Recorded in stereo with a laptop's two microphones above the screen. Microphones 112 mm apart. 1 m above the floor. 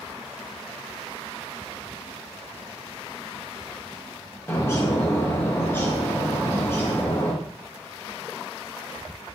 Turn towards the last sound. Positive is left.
turn(degrees=20)  # may be behind; listen again after turning